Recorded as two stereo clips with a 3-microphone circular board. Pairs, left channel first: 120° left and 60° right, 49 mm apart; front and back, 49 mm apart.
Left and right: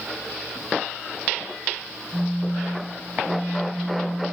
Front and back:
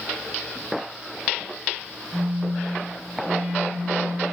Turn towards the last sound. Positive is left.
turn(degrees=-130)